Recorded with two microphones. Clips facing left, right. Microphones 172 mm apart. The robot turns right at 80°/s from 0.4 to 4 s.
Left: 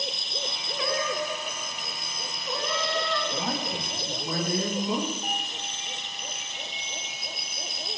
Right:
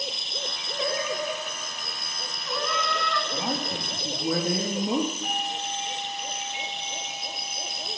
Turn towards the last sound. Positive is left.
turn(degrees=45)  # may be behind; listen again after turning